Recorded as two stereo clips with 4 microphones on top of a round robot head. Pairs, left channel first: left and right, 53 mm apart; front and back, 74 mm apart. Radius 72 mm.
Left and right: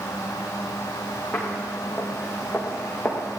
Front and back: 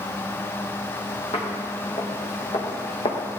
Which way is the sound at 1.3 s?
5° left.